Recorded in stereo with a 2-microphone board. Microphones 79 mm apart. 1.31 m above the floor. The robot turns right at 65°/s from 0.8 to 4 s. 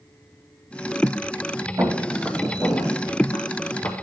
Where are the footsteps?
40° right (ahead or behind), 3 m; by 3.9 s 35° left (ahead or behind), 2.5 m.